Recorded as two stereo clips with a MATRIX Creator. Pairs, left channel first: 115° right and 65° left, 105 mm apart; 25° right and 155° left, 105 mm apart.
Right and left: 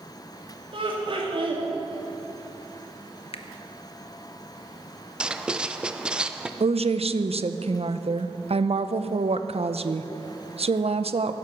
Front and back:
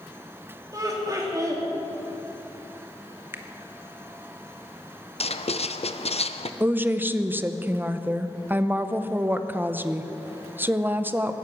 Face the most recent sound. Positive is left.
turn(degrees=85)